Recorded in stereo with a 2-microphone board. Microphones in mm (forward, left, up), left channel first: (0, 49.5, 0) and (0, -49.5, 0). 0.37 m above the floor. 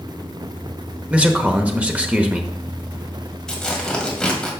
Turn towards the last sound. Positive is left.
turn(degrees=5)  # may be behind; listen again after turning